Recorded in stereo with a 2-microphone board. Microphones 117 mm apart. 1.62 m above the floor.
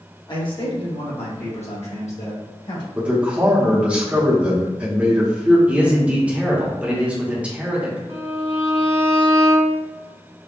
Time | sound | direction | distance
0.3 | a man speaking | 45° left (ahead or behind) | 1.3 m
3.0 | a man speaking | 10° right (ahead or behind) | 0.9 m
5.7 | a man speaking | 10° right (ahead or behind) | 1.0 m
8.1 | a violin | 25° right (ahead or behind) | 1.6 m